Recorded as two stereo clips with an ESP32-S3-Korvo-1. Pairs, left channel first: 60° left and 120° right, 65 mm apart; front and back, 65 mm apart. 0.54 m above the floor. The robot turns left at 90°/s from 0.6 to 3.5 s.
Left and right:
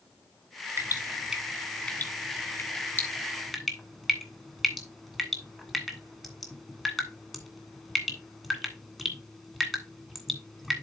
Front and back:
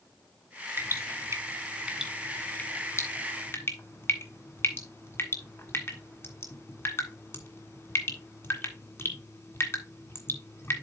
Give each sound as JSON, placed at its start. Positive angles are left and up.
{"t": 0.8, "sound": "dripping", "azimuth_deg": -145, "distance_m": 1.6}